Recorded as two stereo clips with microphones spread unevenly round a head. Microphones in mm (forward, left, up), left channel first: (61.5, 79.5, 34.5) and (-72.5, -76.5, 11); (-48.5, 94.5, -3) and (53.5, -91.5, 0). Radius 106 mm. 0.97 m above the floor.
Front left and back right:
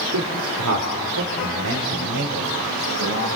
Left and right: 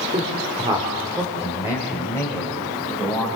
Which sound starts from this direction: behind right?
A man speaking, at 0.1 s.